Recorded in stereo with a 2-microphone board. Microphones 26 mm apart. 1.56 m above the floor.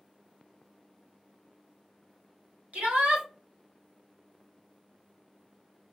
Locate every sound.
2.7 s a shout: 75° right (ahead or behind), 1.2 m